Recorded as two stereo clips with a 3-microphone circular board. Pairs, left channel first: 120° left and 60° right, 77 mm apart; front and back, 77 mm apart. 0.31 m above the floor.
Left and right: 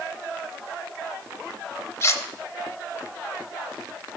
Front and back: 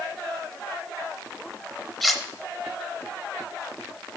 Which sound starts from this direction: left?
Cutlery clinking, at 2.0 s.